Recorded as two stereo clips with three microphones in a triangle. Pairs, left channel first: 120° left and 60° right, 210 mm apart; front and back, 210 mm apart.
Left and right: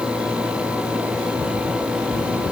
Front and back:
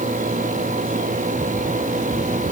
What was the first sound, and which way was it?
Only background noise.